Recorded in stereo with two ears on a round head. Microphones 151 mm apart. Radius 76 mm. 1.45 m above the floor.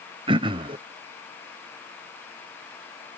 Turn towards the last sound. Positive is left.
turn(degrees=-30)  # may be behind; listen again after turning